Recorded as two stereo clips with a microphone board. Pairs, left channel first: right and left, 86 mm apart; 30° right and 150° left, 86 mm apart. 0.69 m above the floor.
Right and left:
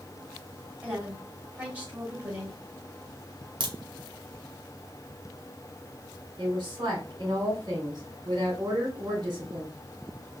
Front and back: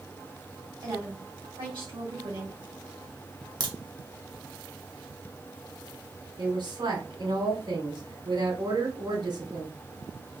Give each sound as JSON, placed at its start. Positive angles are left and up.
{"t": 0.8, "sound": "a woman speaking", "azimuth_deg": 160, "distance_m": 3.0}
{"t": 3.6, "sound": "a crack", "azimuth_deg": 115, "distance_m": 1.3}
{"t": 6.4, "sound": "a woman speaking", "azimuth_deg": 125, "distance_m": 3.0}